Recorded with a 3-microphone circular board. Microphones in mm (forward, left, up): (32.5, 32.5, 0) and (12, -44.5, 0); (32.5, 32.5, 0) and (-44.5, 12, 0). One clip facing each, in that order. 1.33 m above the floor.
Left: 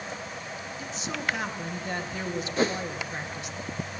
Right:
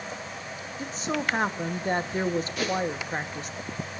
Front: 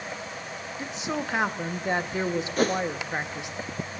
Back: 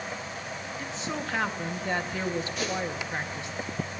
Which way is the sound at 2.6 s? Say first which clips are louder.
Left 2 dB, front 7 dB; 30° left.